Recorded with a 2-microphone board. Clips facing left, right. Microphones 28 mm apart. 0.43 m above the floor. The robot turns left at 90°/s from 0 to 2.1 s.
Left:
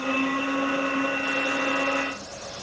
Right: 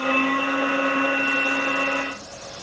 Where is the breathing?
No breathing in this recording.